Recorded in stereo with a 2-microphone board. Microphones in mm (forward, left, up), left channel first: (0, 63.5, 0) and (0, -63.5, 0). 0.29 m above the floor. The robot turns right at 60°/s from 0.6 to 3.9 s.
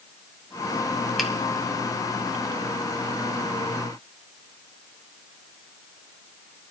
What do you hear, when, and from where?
1.2 s a finger snap: centre (ahead or behind), 1.9 m; by 1.3 s 5° right (ahead or behind), 1.9 m